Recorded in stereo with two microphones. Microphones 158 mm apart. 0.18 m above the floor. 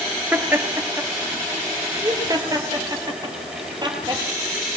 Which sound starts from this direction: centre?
Laughter, at 0.3 s.